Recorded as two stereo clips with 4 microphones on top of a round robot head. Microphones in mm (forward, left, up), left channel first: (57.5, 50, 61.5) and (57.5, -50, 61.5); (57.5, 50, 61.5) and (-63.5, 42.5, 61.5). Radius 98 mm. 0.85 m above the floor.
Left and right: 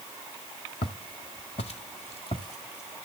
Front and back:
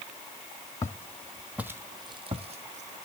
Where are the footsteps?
65° left, 1.4 m; by 3.0 s 170° left, 1.9 m.